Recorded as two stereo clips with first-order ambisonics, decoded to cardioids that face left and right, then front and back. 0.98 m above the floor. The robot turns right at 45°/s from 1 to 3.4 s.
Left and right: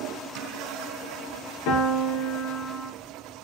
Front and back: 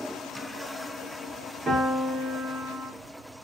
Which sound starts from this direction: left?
A piano, at 1.7 s.